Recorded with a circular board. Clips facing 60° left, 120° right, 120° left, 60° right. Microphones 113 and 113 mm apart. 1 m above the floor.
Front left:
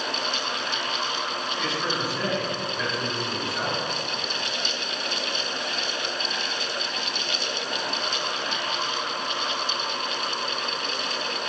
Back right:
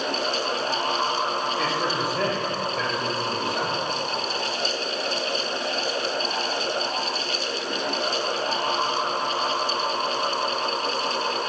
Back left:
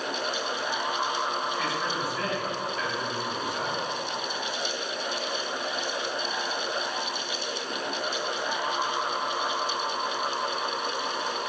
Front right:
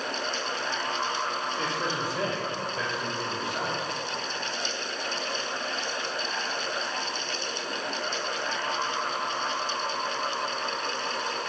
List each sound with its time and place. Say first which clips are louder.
1.6 s a man speaking: back right 3 dB, even; 100° right, 3.5 m